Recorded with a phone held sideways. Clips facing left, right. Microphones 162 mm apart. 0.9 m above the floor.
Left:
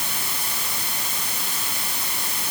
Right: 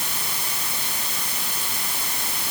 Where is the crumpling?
I don't hear crumpling.